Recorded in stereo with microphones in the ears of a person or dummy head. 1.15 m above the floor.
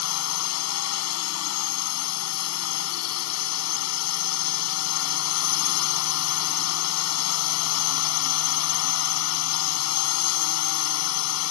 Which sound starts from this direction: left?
A drone, at 0.0 s.